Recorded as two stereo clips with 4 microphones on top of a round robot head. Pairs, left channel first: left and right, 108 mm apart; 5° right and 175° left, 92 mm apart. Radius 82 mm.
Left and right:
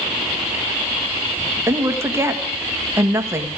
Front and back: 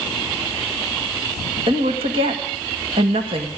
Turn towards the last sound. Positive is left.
turn(degrees=-155)